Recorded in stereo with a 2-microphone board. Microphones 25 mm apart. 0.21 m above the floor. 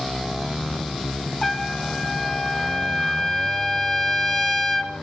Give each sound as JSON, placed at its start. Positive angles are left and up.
{"t": 1.4, "sound": "a trumpet", "side_deg": 5, "distance_m": 1.8}